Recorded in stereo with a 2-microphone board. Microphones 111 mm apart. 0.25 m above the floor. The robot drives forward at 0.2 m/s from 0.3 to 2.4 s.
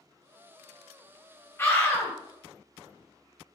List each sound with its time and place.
1.6 s a scream: 20° left (ahead or behind), 0.9 m